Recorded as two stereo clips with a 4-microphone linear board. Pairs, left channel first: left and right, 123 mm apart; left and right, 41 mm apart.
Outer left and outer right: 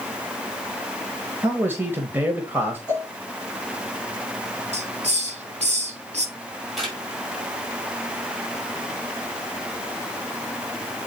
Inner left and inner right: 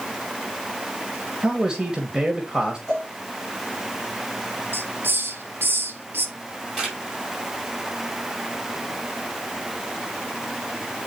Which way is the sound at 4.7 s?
65° right (ahead or behind).